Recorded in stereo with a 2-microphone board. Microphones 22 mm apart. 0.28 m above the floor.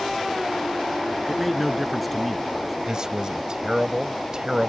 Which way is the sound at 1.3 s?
Centre (ahead or behind).